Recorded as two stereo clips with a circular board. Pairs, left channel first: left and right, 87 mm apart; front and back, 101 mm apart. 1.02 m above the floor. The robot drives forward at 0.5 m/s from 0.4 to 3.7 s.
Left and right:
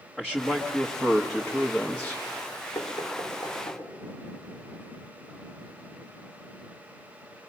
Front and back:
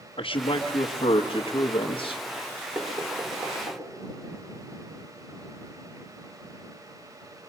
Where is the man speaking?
5° left, 1.4 m; by 2.2 s 20° left, 0.6 m.